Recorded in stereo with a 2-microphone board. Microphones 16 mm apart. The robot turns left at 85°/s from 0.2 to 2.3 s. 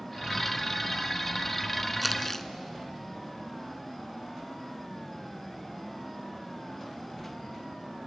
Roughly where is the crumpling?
Centre.